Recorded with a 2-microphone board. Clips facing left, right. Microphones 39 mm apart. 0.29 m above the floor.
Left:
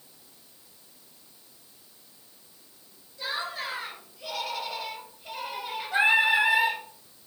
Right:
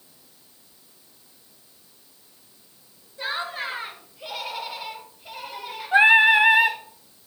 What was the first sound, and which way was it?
Laughter, 45° right (ahead or behind).